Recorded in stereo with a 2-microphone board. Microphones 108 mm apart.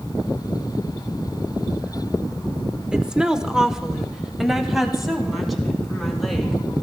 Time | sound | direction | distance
2.9 | a woman speaking | 10° right (ahead or behind) | 0.7 m